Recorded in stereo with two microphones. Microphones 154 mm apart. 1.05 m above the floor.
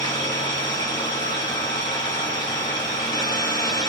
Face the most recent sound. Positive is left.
turn(degrees=35)  # may be behind; listen again after turning